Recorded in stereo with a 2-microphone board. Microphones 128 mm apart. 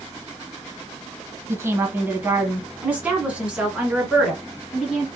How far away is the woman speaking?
About 1.3 m.